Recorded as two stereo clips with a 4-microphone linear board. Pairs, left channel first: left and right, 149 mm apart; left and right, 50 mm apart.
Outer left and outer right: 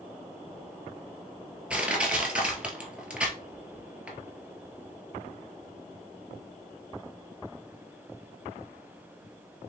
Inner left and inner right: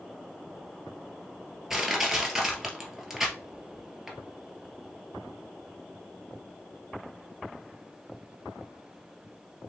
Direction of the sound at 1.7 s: 10° right (ahead or behind).